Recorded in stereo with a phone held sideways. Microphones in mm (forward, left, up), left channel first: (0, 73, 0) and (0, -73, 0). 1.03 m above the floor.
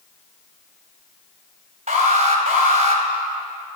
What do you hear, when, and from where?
1.9 s an alarm: 50° right (ahead or behind), 4 m